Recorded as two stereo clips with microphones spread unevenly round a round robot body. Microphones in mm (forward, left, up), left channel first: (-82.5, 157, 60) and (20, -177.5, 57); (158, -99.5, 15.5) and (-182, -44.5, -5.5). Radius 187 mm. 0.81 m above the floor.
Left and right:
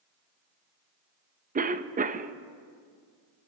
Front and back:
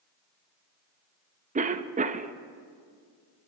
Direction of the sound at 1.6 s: 135° right.